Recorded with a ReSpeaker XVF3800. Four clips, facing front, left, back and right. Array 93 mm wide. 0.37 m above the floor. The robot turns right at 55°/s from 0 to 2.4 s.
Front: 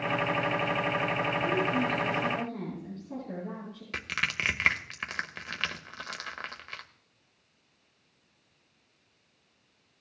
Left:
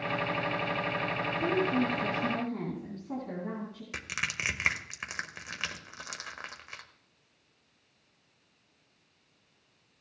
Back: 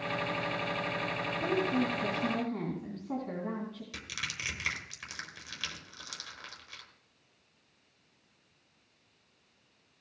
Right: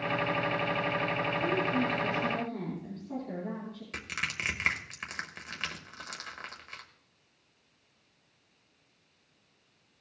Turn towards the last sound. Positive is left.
turn(degrees=15)